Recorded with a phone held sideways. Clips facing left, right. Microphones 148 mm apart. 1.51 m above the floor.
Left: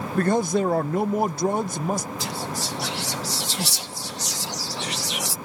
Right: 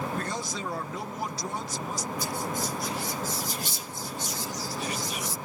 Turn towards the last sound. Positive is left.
turn(degrees=75)  # may be behind; listen again after turning